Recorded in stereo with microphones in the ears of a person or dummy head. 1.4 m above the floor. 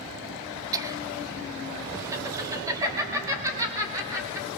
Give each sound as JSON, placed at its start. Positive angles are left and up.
{"t": 0.7, "sound": "laughter", "side_deg": -20, "distance_m": 0.9}